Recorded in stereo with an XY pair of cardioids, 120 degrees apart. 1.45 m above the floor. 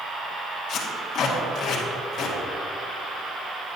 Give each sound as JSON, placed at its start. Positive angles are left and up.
{"t": 0.7, "sound": "tape being pulled", "azimuth_deg": 55, "distance_m": 1.9}